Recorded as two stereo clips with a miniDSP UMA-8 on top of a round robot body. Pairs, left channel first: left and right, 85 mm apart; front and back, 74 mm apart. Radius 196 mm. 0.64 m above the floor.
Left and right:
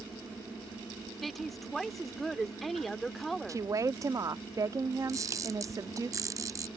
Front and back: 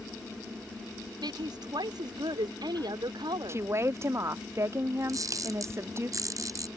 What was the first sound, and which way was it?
A woman speaking, straight behind.